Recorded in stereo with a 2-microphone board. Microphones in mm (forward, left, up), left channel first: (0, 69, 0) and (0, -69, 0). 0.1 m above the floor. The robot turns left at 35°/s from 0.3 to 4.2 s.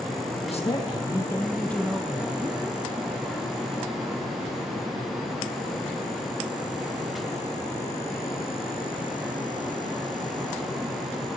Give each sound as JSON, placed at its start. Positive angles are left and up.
{"t": 0.4, "sound": "a man speaking", "azimuth_deg": 55, "distance_m": 3.0}